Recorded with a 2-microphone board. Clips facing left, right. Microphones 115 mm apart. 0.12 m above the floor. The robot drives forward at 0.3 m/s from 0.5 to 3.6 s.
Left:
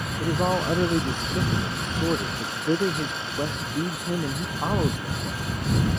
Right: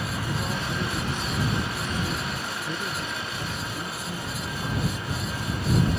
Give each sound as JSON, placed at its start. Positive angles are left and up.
{"t": 0.2, "sound": "a man speaking", "side_deg": 55}